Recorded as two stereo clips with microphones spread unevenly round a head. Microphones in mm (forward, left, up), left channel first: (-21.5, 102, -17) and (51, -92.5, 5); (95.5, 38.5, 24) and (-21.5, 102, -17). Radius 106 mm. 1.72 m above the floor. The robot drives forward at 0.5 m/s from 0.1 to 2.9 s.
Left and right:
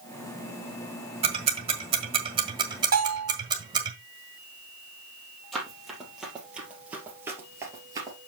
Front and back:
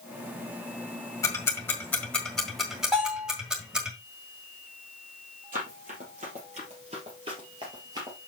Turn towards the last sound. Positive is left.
turn(degrees=-125)